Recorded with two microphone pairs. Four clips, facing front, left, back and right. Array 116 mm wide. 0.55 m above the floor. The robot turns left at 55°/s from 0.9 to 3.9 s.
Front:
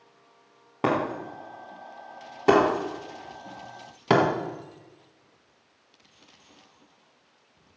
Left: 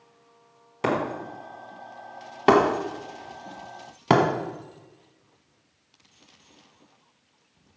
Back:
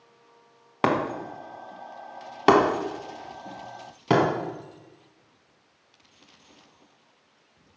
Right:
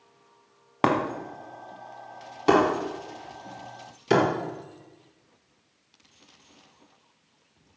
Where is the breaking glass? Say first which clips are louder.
Right 2 dB, back 1 dB; 120° right, 1.4 m; by 4.2 s 75° left, 1.4 m.